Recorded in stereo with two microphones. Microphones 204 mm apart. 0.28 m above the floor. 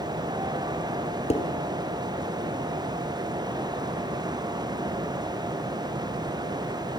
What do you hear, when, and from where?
1.3 s dishes clattering: 35° left (ahead or behind), 3.5 m